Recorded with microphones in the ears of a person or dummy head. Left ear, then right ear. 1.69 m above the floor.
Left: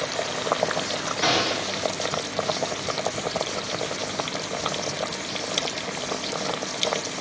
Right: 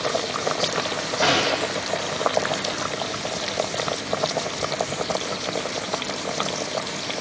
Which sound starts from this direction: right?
A gunshot, at 1.2 s.